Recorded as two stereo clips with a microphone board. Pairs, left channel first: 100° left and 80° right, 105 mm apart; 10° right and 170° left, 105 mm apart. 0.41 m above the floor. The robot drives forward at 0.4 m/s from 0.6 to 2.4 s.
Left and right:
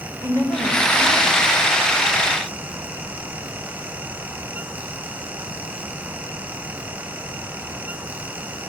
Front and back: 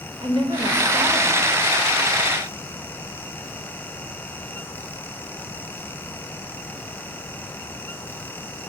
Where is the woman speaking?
155° left, 1.9 m; by 1.4 s 160° left, 2 m.